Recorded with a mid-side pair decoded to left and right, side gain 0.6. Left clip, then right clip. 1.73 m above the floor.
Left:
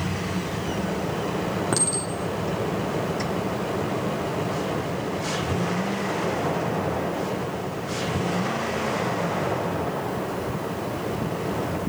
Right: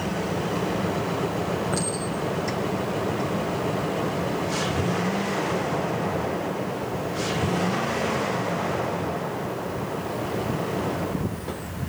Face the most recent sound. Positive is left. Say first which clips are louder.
# left 1 dB
turn(degrees=60)